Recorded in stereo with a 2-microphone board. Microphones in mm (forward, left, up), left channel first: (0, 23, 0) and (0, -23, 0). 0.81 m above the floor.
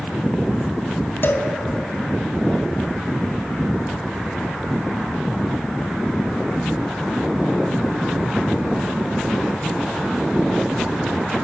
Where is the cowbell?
55° left (ahead or behind), 1.7 m.